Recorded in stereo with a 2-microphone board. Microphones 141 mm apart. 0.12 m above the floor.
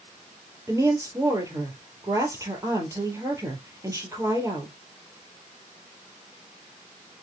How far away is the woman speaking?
About 3 m.